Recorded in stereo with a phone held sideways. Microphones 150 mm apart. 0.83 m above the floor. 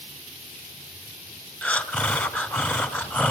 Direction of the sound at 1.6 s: 10° left (ahead or behind).